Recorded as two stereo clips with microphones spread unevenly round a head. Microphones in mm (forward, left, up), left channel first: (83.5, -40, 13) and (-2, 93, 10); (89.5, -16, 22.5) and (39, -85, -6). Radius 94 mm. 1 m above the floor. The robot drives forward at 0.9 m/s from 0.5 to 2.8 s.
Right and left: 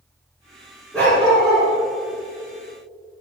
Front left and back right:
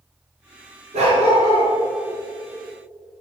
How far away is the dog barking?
About 3.5 m.